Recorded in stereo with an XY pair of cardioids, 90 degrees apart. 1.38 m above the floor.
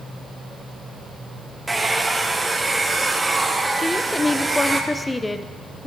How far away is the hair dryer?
About 1.0 m.